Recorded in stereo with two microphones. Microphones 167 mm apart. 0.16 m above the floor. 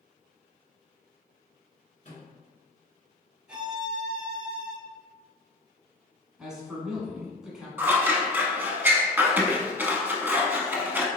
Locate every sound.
2.0 s a microwave: 55° left (ahead or behind), 1.6 m
3.5 s a violin: 5° right (ahead or behind), 1.2 m
6.4 s a man speaking: 5° right (ahead or behind), 1.3 m
7.8 s scissors: 10° right (ahead or behind), 0.5 m